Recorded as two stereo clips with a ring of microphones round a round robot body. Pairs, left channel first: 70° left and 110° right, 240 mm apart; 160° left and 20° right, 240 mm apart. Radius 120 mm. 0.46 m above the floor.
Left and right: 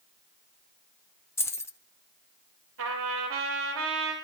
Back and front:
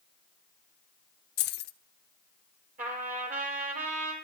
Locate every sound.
1.4 s keys jangling: 145° left, 0.9 m
2.8 s a trumpet: 80° right, 6 m